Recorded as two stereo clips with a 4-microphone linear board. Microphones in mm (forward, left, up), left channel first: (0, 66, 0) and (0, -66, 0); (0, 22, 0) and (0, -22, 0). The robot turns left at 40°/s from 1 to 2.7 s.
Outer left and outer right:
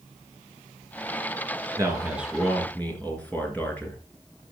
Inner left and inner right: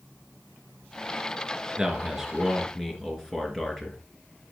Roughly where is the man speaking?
Behind right.